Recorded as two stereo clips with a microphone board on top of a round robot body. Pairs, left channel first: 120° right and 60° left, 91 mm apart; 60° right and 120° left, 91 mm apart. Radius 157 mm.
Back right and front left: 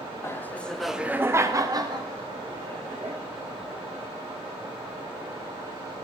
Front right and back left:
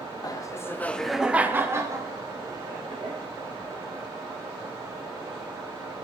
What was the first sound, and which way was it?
Laughter, 75° right.